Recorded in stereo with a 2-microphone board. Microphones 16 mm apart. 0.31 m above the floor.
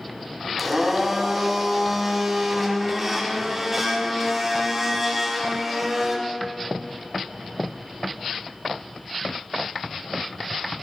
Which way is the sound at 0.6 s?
5° right (ahead or behind).